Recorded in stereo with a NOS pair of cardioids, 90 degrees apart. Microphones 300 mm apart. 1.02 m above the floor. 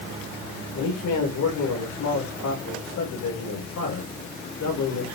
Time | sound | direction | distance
0.7 | a man speaking | 65° left | 4 m